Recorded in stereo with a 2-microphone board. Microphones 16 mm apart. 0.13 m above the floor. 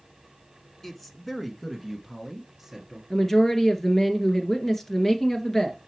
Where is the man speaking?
20° left (ahead or behind), 1.1 m; by 3.0 s 10° right (ahead or behind), 1.8 m.